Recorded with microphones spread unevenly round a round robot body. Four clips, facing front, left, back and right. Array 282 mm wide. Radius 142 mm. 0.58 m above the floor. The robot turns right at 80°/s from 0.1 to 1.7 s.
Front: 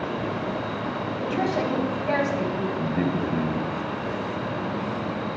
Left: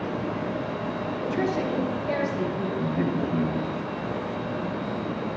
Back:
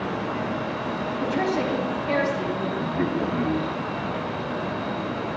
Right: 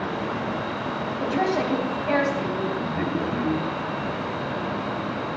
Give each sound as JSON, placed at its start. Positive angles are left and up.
{"t": 1.2, "sound": "a woman speaking", "azimuth_deg": -90, "distance_m": 4.0}
{"t": 2.8, "sound": "a man speaking", "azimuth_deg": -25, "distance_m": 3.0}